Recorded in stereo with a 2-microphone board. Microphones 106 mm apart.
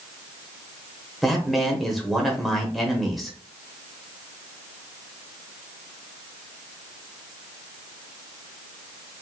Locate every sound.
1.2 s a man speaking: centre (ahead or behind), 0.9 m